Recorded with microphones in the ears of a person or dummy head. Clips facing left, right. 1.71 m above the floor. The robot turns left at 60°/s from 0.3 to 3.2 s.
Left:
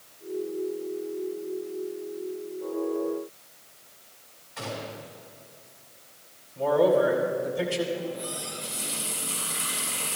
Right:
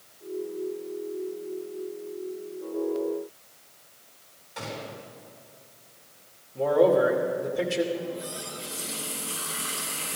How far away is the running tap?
About 4.5 m.